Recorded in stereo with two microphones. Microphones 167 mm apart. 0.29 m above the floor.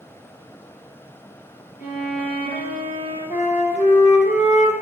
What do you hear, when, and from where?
1.8 s a violin: 60° left (ahead or behind), 3 m
3.3 s a flute: 45° left (ahead or behind), 1.9 m